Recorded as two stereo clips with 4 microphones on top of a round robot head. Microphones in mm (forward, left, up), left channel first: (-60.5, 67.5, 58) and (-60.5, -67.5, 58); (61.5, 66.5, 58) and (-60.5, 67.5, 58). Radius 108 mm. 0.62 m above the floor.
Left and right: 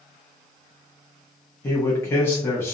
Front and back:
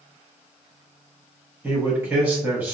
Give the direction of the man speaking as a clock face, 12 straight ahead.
8 o'clock.